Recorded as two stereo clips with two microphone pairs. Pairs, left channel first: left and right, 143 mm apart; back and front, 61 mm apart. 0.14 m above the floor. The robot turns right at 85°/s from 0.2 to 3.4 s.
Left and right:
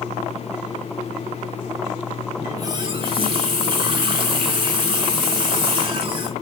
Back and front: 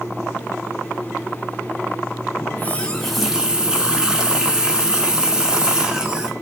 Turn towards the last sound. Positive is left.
turn(degrees=-70)